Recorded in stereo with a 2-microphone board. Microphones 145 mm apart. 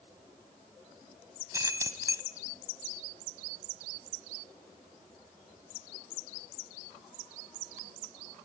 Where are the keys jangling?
20° right (ahead or behind), 1.5 m.